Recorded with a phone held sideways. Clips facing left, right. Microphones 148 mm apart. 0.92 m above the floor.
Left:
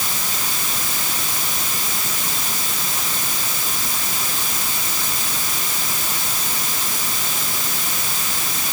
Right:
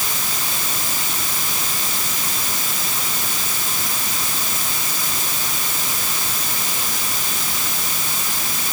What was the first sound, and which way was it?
Only background noise.